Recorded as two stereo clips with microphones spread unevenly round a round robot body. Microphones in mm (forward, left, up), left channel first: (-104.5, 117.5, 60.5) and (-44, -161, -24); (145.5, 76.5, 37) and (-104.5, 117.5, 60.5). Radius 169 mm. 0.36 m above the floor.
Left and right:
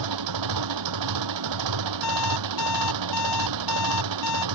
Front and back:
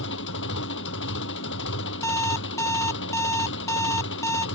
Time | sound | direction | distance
0.0 | an engine running | 65° right | ?
2.0 | an alarm clock | 70° left | ?